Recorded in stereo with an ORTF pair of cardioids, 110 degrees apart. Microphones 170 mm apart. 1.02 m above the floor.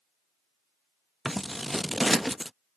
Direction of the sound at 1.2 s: Straight ahead.